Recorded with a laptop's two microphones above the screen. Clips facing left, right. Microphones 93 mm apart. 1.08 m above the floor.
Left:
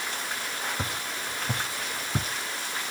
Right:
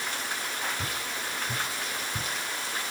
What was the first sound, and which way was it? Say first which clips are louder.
Footsteps: left 1 dB; 55° left (ahead or behind).